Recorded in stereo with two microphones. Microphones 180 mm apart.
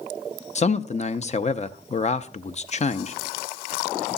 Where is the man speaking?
40° left (ahead or behind), 0.5 m.